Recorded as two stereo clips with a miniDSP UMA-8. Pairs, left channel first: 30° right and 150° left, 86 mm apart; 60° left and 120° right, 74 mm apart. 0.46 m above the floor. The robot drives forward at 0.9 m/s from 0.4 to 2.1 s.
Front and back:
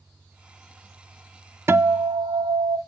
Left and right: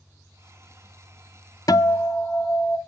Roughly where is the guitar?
Left.